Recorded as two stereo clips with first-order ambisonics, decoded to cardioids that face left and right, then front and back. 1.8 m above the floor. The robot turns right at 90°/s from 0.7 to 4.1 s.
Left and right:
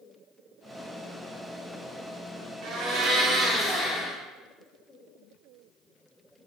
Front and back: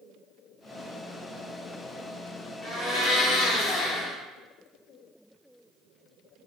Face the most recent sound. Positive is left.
turn(degrees=40)